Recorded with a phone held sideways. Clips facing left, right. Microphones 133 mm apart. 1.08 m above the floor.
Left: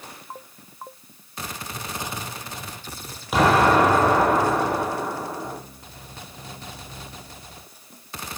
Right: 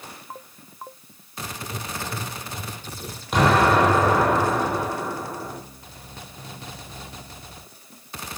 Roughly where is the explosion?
Centre.